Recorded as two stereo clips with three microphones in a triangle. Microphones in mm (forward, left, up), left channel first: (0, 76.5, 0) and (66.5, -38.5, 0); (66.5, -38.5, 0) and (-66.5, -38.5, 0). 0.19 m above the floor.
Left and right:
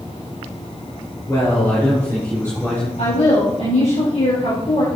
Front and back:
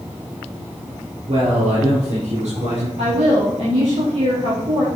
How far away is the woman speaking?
About 5 m.